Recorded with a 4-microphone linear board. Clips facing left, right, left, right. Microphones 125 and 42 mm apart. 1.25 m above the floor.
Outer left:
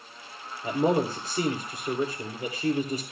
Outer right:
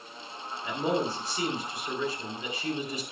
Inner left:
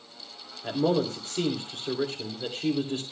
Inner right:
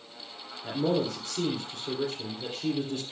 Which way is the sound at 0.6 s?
40° left (ahead or behind).